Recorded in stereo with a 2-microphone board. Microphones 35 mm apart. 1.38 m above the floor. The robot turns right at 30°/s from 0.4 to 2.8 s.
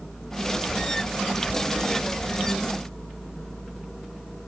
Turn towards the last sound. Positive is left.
No sound to turn to.